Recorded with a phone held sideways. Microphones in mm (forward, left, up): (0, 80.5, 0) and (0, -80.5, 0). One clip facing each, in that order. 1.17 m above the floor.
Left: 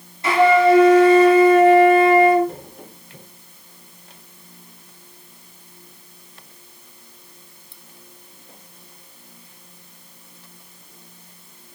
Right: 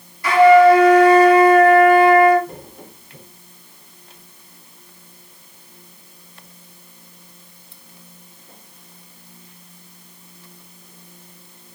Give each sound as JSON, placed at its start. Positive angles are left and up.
{"t": 0.2, "sound": "a flute", "side_deg": 25, "distance_m": 0.7}